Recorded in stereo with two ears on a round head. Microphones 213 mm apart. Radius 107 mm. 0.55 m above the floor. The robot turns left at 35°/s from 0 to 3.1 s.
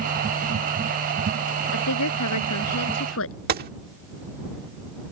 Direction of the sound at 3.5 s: 40° right (ahead or behind).